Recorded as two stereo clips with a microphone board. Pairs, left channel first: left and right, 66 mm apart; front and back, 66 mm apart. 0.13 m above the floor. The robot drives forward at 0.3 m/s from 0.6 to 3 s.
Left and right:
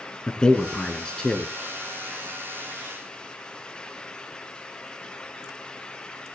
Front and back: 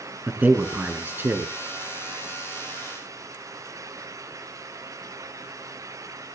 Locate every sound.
0.3 s a man speaking: 155° left, 1.2 m; by 1.5 s 160° left, 1.3 m